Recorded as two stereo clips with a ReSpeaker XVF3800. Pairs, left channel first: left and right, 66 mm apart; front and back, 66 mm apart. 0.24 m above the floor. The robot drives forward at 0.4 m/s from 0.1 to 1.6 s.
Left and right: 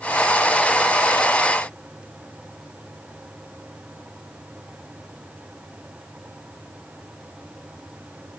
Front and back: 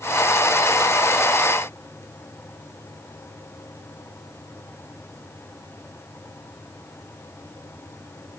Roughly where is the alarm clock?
No alarm clock in this recording.